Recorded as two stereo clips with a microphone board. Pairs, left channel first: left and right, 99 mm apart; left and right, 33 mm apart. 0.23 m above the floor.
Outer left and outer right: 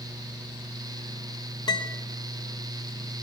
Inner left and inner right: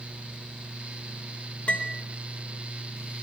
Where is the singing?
No singing in this recording.